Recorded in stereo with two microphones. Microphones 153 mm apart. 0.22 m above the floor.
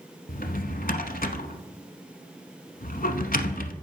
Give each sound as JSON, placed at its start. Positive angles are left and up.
{"t": 0.3, "sound": "a drawer", "side_deg": 65, "distance_m": 0.8}